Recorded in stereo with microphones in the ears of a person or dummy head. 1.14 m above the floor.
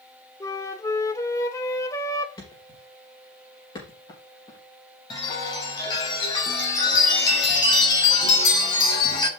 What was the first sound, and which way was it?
A flute, 15° left (ahead or behind).